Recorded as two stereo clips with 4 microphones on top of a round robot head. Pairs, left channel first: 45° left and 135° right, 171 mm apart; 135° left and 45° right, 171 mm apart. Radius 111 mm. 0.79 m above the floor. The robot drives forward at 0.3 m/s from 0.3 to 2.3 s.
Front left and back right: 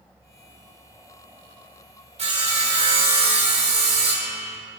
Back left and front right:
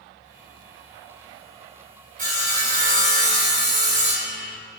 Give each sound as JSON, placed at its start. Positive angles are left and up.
{"t": 2.2, "sound": "sawing", "azimuth_deg": -85, "distance_m": 3.0}